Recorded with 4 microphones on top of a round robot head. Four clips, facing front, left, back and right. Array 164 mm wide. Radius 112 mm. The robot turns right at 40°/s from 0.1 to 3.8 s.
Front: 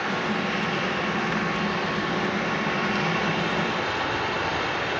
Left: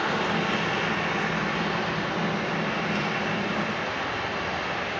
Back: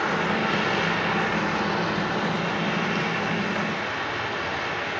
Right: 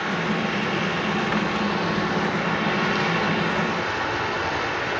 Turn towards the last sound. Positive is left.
turn(degrees=-60)